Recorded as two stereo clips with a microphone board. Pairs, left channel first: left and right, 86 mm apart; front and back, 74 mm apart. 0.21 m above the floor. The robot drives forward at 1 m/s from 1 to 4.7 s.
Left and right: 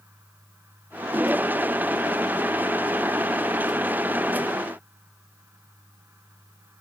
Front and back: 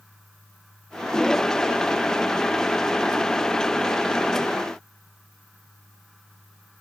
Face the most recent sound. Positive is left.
No sound to turn to.